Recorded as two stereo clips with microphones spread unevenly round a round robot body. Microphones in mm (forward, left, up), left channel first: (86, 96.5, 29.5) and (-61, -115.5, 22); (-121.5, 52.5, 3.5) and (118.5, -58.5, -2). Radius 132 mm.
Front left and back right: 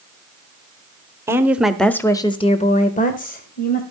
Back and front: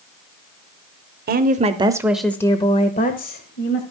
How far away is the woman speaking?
About 1.0 m.